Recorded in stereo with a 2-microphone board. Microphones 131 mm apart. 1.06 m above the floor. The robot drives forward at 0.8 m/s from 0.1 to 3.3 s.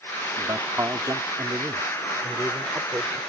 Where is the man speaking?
30° right (ahead or behind); by 3.2 s 15° right (ahead or behind).